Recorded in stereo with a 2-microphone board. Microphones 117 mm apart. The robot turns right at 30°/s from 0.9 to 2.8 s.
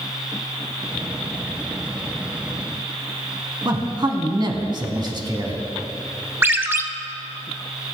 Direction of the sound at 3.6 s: 40° right (ahead or behind).